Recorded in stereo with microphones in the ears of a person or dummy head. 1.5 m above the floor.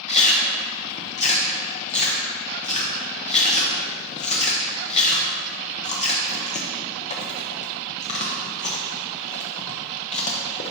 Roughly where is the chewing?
Left.